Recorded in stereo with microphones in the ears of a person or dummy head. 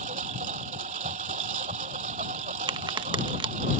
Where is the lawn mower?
35° right (ahead or behind).